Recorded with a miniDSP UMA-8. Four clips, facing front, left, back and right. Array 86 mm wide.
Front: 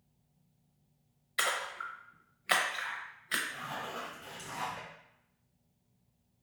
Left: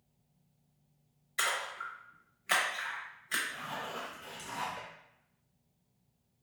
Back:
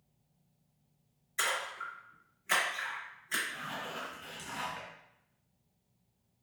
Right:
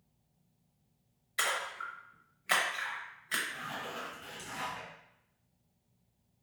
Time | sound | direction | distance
1.4 | a splash | 10° right | 0.6 m
3.5 | a zipper | 175° left | 1.3 m